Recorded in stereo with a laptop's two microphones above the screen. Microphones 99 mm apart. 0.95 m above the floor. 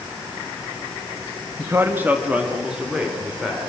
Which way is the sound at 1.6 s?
30° right (ahead or behind).